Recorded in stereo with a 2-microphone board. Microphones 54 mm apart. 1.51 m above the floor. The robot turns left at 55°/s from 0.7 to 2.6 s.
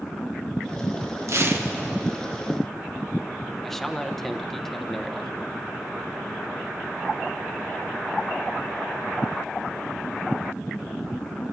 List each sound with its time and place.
1.3 s tearing paper: 60° right (ahead or behind), 1.4 m; by 1.7 s 35° right (ahead or behind), 1.4 m
3.6 s a man speaking: 5° left (ahead or behind), 0.9 m